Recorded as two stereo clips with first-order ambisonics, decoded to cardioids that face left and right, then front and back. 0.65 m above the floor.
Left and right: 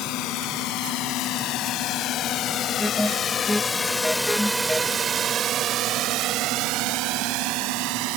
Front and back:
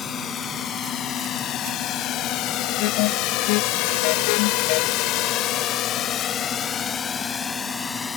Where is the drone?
60° left; by 8.2 s 75° right.